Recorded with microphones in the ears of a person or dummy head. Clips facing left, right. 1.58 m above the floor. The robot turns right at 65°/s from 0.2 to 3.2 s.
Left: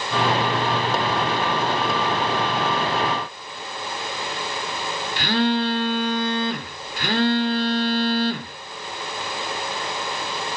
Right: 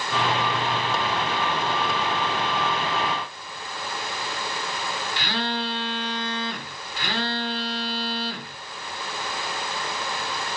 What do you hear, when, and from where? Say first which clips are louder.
5.2 s a phone buzzing: left 10 dB; 45° left (ahead or behind), 3 m